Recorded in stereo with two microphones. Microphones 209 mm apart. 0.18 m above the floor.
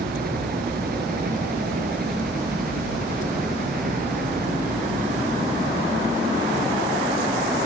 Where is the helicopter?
50° right (ahead or behind); by 7.7 s 45° right (ahead or behind).